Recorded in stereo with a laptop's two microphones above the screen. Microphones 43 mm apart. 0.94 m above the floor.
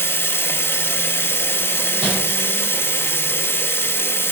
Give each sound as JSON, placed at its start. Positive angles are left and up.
{"t": 0.0, "sound": "running water", "side_deg": 65, "distance_m": 0.8}
{"t": 2.0, "sound": "crumpling", "side_deg": -20, "distance_m": 3.5}